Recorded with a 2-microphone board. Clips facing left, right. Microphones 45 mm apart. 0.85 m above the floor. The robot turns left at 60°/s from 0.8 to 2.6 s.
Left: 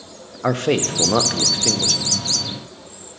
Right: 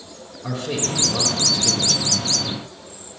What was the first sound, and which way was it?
A man speaking, 85° left.